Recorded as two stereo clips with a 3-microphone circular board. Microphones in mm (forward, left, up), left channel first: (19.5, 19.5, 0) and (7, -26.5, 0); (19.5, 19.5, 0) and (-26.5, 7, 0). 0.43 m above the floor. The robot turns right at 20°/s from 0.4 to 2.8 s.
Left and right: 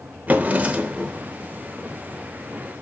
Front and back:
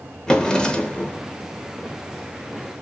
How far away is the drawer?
About 0.8 m.